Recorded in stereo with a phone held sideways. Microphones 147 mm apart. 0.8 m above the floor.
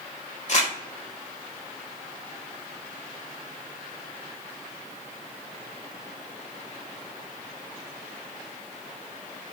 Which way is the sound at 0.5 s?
55° left (ahead or behind).